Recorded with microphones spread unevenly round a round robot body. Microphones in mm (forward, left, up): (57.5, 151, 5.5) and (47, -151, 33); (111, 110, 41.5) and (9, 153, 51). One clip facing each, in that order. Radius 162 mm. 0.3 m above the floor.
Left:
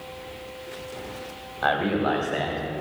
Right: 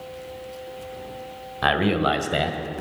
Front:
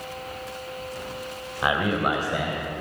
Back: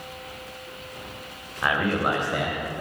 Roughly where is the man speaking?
Right.